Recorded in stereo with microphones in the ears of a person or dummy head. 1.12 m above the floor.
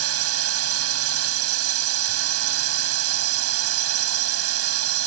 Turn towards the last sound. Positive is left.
turn(degrees=-80)